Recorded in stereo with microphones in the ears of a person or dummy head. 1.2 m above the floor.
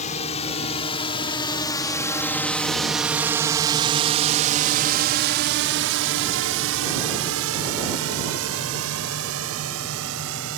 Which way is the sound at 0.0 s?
40° left (ahead or behind).